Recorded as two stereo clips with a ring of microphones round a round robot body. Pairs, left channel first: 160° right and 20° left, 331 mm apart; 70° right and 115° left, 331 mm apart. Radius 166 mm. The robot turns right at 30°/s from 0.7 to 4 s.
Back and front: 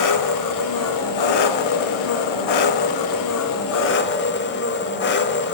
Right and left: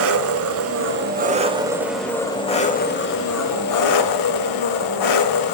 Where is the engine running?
165° left, 0.8 m; by 5.5 s 95° right, 0.8 m.